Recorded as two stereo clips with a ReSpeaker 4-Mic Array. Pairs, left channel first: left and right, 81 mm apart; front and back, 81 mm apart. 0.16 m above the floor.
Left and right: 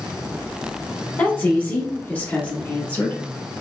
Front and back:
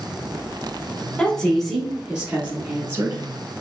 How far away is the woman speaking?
About 1.1 m.